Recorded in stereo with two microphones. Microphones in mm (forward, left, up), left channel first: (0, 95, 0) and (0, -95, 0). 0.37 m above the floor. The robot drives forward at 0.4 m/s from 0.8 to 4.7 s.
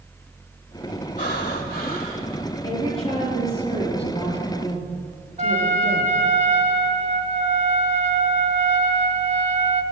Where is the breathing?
55° left (ahead or behind), 1.6 m; by 2.4 s 45° left (ahead or behind), 1.8 m.